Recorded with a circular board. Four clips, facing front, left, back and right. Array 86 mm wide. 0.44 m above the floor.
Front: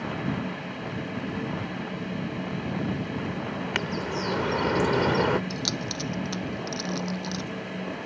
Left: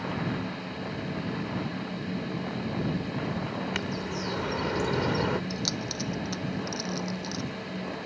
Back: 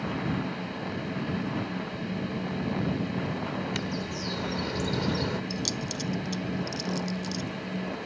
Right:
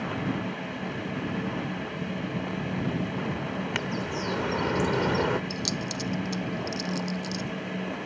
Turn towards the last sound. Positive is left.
turn(degrees=25)